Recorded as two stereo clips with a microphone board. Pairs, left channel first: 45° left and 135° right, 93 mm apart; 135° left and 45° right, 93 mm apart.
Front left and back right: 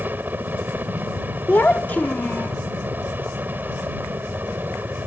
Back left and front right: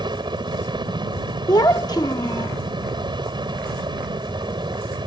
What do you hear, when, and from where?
0.0 s a helicopter: 65° right
1.5 s a child speaking: 110° left